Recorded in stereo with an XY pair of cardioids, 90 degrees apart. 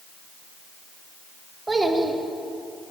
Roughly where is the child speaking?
Ahead right.